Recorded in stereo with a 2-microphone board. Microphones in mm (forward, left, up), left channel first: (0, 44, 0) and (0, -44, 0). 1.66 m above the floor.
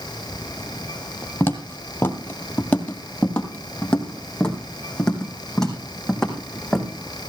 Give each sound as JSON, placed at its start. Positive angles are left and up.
{"t": 1.4, "sound": "footsteps", "side_deg": 25, "distance_m": 1.8}